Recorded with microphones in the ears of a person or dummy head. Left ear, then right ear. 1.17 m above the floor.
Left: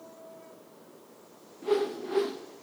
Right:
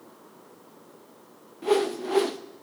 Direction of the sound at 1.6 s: 20° right (ahead or behind).